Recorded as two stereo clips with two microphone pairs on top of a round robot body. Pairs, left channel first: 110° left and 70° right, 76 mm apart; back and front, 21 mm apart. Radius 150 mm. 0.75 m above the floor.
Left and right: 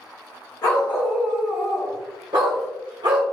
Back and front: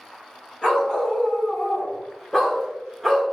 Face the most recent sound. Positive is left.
turn(degrees=-80)